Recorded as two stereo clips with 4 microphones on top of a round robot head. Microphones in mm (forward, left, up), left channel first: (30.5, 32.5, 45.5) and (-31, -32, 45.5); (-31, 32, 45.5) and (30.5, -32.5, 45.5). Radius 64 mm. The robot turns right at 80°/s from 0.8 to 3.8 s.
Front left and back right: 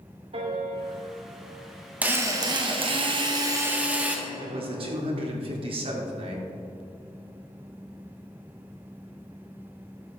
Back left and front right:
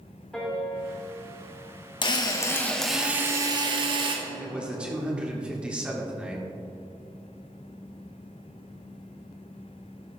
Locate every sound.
0.3 s a piano: 145° right, 3 m; by 1.6 s 80° right, 3 m
2.0 s a drill: 155° left, 1.8 m; by 4.2 s 65° right, 1.8 m
4.3 s a man speaking: 125° right, 2.5 m